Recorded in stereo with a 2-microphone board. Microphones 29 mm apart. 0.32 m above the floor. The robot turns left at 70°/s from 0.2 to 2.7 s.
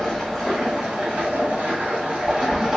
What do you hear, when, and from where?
0.0 s running water: 5° left, 1.2 m; by 2.8 s 170° right, 1.2 m